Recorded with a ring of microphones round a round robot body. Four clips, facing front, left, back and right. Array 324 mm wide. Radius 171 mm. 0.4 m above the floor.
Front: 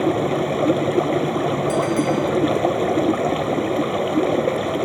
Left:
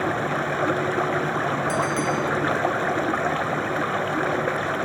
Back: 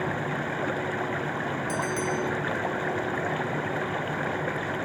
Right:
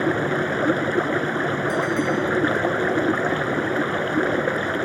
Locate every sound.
0.0 s running water: 25° right
1.7 s a bell: 120° left